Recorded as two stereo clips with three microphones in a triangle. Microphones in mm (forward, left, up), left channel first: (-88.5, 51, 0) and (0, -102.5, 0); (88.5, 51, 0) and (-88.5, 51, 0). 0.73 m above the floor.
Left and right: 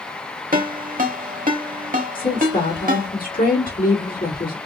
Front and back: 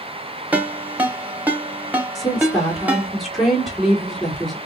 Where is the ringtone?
100° right, 0.8 m.